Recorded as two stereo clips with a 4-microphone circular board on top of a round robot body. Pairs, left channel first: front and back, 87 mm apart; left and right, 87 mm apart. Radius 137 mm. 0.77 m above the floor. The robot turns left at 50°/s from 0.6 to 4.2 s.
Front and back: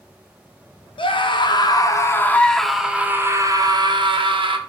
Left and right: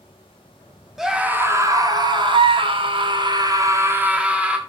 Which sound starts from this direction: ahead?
A scream, at 1.0 s.